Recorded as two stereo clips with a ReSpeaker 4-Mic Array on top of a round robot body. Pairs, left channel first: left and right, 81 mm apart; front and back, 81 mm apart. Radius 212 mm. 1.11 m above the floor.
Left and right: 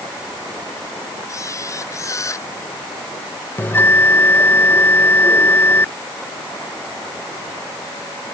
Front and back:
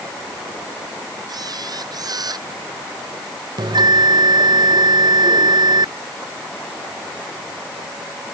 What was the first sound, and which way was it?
A camera shutter, 140° left.